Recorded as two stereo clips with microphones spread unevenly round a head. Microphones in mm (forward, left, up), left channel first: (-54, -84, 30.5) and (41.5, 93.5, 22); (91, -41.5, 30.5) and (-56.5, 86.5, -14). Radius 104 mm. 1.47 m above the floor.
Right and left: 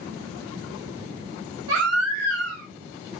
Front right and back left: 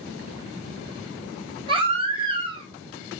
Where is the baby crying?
75° left, 3.5 m.